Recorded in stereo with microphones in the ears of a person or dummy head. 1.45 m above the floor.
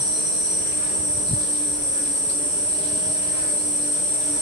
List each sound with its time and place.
0.0 s an insect: 30° left (ahead or behind), 1.0 m